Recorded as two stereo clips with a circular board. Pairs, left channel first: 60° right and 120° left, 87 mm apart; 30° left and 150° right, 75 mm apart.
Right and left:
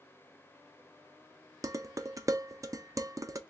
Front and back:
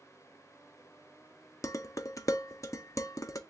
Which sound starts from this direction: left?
Dishes clattering, at 1.6 s.